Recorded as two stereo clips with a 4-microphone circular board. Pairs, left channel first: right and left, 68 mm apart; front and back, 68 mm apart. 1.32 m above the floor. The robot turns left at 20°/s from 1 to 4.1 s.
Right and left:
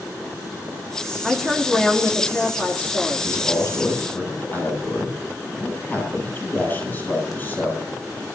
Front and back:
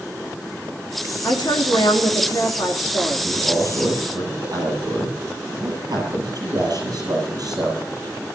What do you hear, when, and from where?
1.2 s a woman speaking: straight ahead, 3.5 m; by 3.3 s 45° right, 3.5 m
3.2 s a man speaking: 135° right, 9 m; by 7.8 s 150° right, 9 m